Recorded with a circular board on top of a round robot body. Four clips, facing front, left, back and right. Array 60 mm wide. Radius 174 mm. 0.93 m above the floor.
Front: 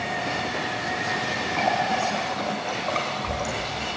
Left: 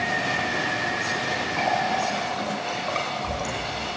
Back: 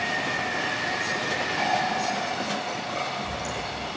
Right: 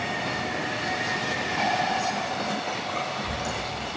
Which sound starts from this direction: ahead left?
A running tap, at 1.6 s.